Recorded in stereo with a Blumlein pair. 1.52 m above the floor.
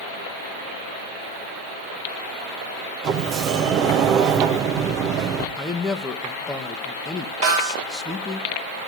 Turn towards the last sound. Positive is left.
turn(degrees=-55)